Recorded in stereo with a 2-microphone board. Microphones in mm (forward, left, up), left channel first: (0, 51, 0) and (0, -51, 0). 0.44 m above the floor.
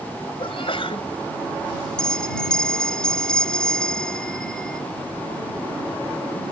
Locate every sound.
0.4 s a sneeze: 65° left (ahead or behind)
2.0 s a bell: 5° left (ahead or behind)